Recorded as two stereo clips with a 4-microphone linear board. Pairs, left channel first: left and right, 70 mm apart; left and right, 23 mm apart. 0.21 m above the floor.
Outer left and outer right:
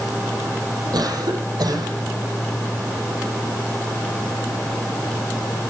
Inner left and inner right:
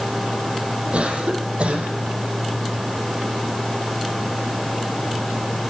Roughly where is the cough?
Right.